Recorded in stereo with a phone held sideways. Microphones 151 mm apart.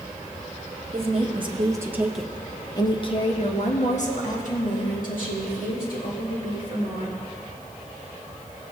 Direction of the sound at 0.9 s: 50° right (ahead or behind).